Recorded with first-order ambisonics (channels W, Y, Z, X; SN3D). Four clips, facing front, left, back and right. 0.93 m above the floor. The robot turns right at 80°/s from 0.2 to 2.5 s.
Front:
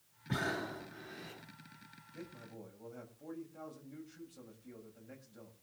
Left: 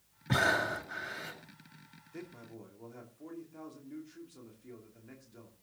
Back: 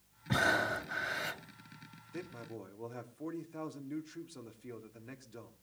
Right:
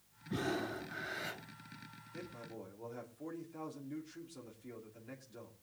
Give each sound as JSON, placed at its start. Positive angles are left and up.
{"t": 0.3, "sound": "breathing", "azimuth_deg": 105, "distance_m": 3.0}
{"t": 2.1, "sound": "a man speaking", "azimuth_deg": 160, "distance_m": 2.5}